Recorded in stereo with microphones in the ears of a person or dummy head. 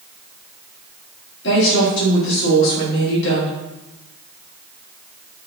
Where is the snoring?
No snoring in this recording.